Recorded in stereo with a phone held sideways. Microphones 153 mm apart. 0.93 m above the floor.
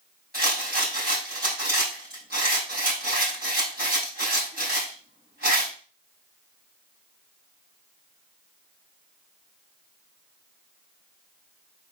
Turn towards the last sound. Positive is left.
turn(degrees=-70)  # may be behind; listen again after turning